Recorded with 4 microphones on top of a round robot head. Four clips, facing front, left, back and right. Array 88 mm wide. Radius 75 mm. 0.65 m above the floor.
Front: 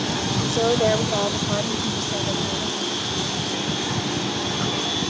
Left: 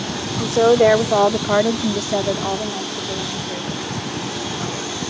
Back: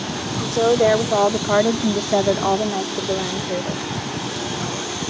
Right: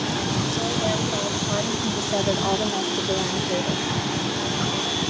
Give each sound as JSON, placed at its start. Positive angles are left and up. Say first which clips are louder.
{"t": 0.4, "sound": "a woman speaking", "louder": "left 11 dB, back 5 dB", "azimuth_deg": 95}